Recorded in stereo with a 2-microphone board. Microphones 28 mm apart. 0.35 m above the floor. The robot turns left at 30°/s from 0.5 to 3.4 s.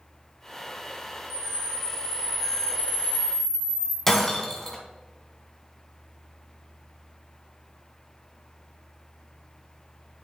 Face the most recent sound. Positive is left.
turn(degrees=10)  # may be behind; listen again after turning